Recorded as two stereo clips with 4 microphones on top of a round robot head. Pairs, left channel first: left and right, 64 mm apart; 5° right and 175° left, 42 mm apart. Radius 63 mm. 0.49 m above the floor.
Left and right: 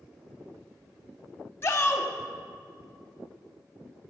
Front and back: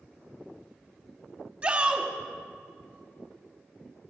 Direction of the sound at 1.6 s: 140° left.